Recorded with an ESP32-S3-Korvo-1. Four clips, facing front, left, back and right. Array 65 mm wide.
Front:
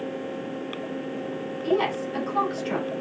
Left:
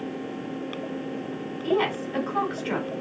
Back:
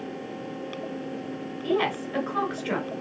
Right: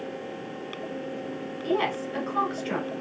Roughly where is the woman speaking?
Behind left.